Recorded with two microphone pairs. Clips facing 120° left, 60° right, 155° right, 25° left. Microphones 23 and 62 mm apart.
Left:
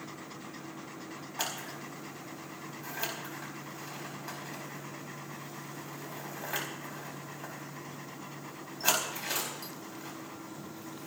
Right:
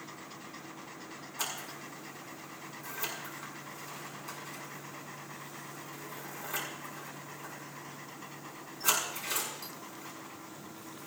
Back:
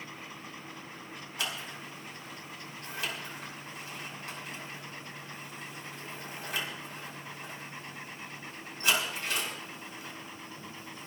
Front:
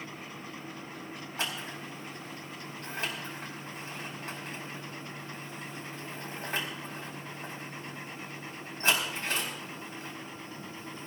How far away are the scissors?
About 4.5 m.